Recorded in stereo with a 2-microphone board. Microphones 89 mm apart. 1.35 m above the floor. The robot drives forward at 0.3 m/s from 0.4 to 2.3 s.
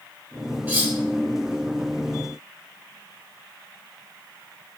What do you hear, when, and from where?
0.7 s cutlery clinking: 25° right (ahead or behind), 3 m; by 0.9 s 20° right (ahead or behind), 3.5 m